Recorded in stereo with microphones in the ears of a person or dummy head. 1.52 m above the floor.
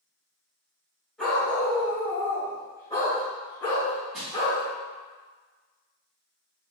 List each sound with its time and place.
1.2 s a dog barking: centre (ahead or behind), 1.6 m; by 4.6 s 25° left (ahead or behind), 3 m
4.1 s crushing: centre (ahead or behind), 1.5 m